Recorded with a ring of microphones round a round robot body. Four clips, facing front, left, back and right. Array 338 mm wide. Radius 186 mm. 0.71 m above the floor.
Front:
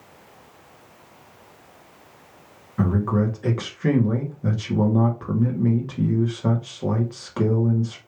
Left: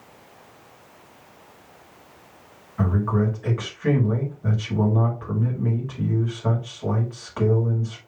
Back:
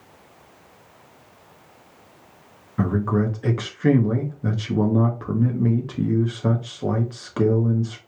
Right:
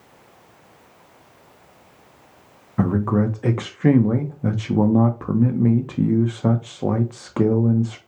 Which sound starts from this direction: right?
A man speaking, at 2.8 s.